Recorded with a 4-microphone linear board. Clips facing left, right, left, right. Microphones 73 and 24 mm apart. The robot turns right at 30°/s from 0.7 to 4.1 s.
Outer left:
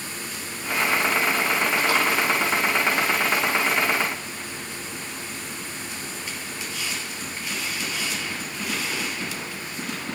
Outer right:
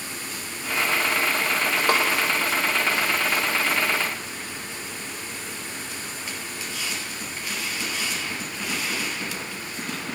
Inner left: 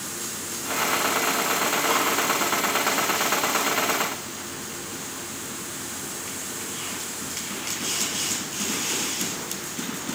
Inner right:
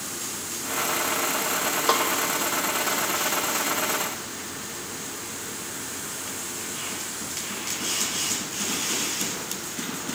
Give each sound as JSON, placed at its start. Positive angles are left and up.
{"t": 1.9, "sound": "a snare drum", "side_deg": -50, "distance_m": 3.5}